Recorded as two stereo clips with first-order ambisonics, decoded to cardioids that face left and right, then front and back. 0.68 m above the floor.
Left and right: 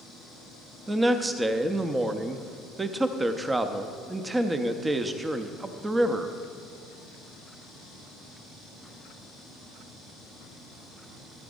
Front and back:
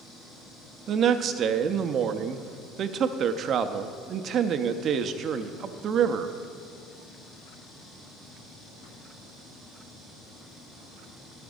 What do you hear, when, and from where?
0.9 s a man speaking: 160° right, 0.6 m